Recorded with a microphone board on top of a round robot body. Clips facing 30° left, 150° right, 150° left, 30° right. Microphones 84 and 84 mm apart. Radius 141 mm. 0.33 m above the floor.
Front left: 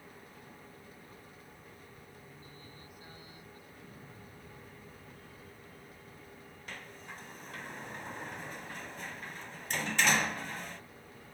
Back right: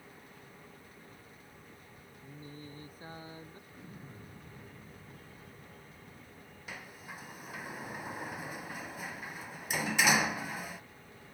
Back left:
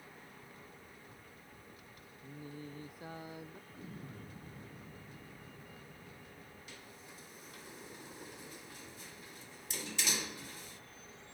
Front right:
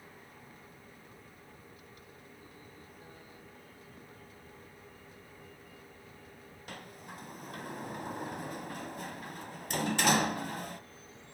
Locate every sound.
2.2 s singing: 155° left
3.7 s an explosion: 140° left
6.7 s a sliding door: 65° right